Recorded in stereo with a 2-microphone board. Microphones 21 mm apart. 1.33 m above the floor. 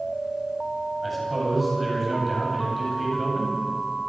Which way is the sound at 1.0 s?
Centre (ahead or behind).